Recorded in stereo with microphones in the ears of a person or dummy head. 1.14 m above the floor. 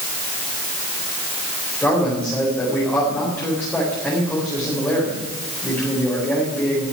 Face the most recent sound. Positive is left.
turn(degrees=5)  # may be behind; listen again after turning